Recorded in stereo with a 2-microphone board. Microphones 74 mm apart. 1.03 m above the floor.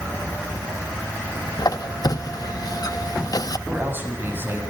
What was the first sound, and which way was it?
A squeak, 55° left (ahead or behind).